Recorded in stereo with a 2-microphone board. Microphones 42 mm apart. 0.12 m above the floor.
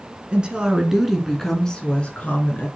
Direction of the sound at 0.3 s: 25° right (ahead or behind).